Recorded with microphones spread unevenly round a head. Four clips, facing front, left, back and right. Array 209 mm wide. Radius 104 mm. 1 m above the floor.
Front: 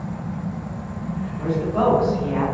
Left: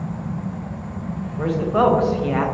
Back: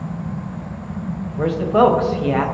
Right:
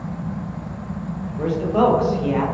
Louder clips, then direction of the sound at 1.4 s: Even, back 7 dB; 175° right.